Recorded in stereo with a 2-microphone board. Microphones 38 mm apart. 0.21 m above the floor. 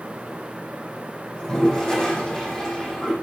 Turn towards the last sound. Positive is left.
turn(degrees=20)  # may be behind; listen again after turning